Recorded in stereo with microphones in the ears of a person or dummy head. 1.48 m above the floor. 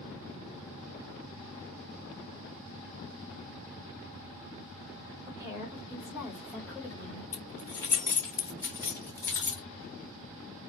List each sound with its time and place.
5.3 s a woman speaking: 30° right (ahead or behind), 1.5 m; by 7.2 s 25° left (ahead or behind), 1.0 m
7.3 s keys jangling: 10° left (ahead or behind), 0.8 m